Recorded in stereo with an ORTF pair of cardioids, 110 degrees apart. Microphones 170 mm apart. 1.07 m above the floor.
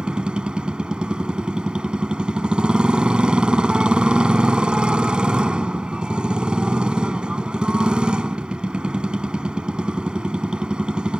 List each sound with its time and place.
0.0 s a motorcycle: 5° right